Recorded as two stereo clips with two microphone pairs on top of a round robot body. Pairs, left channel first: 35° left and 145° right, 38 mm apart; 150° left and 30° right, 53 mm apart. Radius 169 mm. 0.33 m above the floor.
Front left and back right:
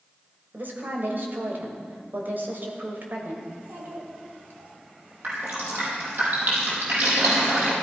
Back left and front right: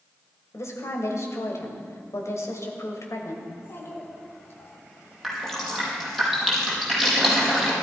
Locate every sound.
0.5 s a woman speaking: 175° left, 3 m
3.5 s a child speaking: 170° right, 3.5 m
5.2 s dripping: 120° right, 5 m